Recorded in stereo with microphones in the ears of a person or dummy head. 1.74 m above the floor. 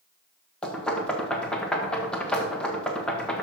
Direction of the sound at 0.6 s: Centre (ahead or behind).